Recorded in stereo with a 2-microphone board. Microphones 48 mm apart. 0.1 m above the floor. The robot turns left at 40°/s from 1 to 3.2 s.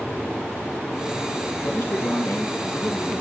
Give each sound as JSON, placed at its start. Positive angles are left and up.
{"t": 1.6, "sound": "a man speaking", "azimuth_deg": 115, "distance_m": 3.0}